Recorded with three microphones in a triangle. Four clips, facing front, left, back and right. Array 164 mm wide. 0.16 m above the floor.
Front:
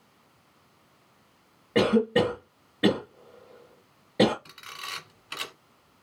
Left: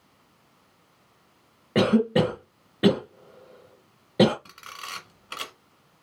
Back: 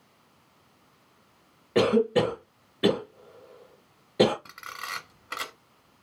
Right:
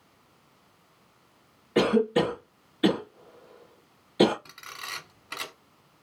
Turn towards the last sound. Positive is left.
turn(degrees=165)